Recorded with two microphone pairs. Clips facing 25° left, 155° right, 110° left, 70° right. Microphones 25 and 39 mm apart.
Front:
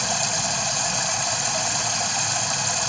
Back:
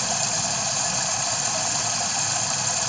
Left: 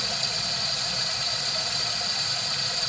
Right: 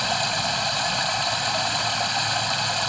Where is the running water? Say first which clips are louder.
Front 2 dB, right 7 dB; 60° right, 1.0 m.